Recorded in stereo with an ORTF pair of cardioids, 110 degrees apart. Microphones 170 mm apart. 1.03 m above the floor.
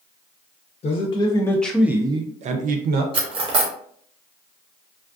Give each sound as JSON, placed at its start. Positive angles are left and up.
{"t": 0.8, "sound": "a man speaking", "azimuth_deg": 35, "distance_m": 0.8}
{"t": 3.1, "sound": "cutlery clinking", "azimuth_deg": -30, "distance_m": 0.9}